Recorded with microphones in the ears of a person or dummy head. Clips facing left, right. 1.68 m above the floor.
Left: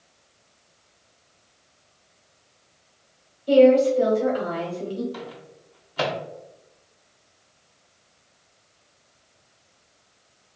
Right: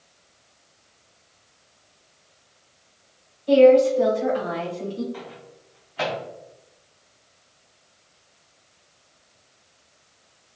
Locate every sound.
3.5 s a woman speaking: 25° left (ahead or behind), 1.0 m
5.1 s a microwave: 55° left (ahead or behind), 0.6 m